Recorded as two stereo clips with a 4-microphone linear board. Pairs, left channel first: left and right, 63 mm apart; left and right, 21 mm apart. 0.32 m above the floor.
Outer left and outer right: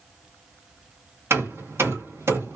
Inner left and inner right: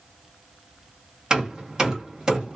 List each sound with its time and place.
1.3 s hammering: 40° right (ahead or behind), 1.6 m